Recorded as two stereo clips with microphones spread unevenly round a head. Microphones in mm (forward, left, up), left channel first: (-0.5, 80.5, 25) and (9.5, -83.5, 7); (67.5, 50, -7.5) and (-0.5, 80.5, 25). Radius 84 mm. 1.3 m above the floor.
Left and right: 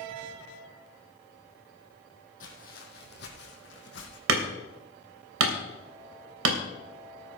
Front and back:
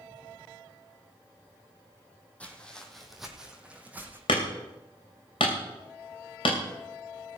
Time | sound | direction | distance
2.4 | footsteps | 60° left | 3 m
4.3 | hammering | 85° right | 3 m